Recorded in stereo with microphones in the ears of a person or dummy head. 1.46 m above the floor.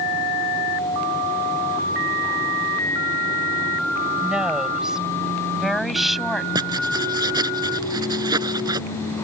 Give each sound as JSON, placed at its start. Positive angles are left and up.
{"t": 4.2, "sound": "a woman speaking", "side_deg": 0}
{"t": 6.5, "sound": "writing", "side_deg": -20}